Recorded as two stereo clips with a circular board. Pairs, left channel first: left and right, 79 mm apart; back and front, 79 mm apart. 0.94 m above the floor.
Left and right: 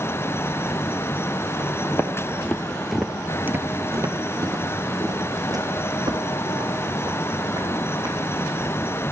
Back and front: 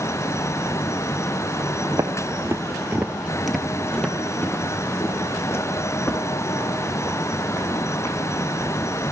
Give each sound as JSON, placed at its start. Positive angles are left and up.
{"t": 1.9, "sound": "footsteps", "azimuth_deg": 35, "distance_m": 1.4}